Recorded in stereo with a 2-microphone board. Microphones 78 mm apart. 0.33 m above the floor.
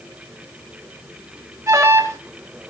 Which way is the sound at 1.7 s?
35° right (ahead or behind).